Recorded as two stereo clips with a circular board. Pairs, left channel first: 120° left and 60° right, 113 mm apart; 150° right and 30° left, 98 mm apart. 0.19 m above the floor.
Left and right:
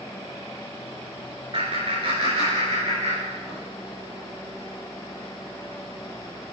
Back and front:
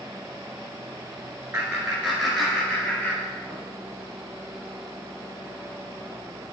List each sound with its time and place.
1.5 s laughter: 40° right, 2.5 m; by 3.6 s 85° right, 3.5 m